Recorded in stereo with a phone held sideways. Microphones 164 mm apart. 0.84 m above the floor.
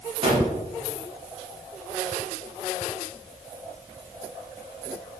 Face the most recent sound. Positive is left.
turn(degrees=-40)  # may be behind; listen again after turning